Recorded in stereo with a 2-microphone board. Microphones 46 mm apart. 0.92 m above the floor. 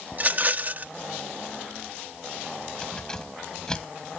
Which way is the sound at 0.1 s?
40° right (ahead or behind).